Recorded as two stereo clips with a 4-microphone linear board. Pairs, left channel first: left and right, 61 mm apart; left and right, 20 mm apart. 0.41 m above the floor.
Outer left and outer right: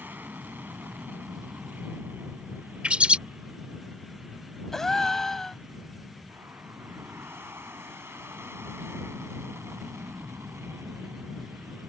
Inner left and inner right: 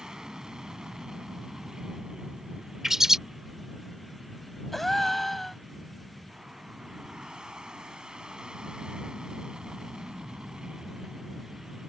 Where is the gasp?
10° left (ahead or behind).